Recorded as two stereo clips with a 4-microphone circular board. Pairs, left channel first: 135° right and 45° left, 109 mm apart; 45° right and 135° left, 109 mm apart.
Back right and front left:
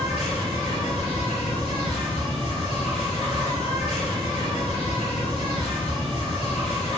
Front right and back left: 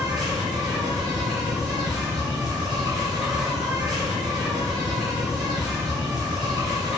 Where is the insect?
135° right, 1.4 m.